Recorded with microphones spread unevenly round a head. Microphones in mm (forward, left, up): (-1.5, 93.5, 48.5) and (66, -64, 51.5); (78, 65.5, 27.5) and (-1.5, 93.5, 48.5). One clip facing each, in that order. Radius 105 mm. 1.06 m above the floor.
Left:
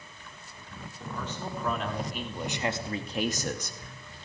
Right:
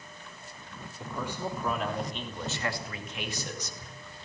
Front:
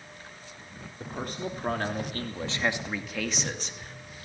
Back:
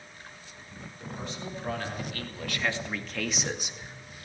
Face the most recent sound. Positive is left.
turn(degrees=95)